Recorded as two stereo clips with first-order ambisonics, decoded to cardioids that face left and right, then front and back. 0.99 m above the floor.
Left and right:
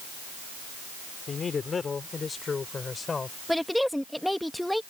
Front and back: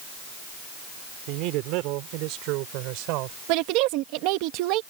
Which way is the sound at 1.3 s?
160° left.